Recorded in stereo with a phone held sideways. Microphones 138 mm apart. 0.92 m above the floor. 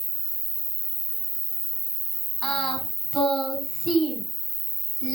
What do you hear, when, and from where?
0.0 s an insect: 65° right (ahead or behind), 3.5 m
2.4 s singing: 5° right (ahead or behind), 4 m